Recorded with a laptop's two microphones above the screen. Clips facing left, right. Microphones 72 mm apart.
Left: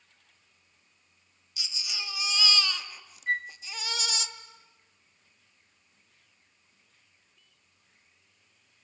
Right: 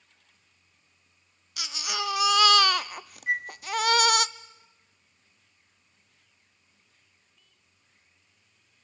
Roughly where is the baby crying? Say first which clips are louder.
Right 9 dB; right.